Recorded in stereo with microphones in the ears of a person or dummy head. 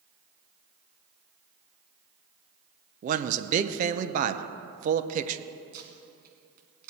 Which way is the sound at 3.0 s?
45° right (ahead or behind).